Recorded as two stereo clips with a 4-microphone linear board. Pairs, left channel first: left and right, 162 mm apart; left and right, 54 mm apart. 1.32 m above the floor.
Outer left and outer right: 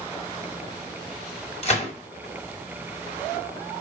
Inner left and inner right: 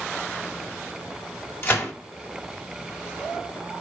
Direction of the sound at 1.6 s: 45° left (ahead or behind).